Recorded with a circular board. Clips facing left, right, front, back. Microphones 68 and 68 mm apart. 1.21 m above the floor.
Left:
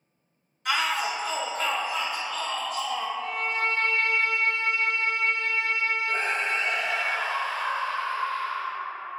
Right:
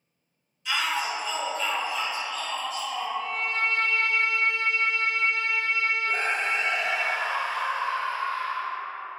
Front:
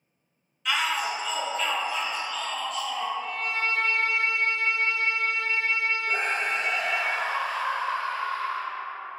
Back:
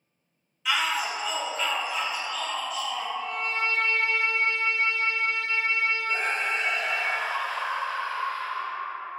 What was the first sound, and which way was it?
A shout, 95° left.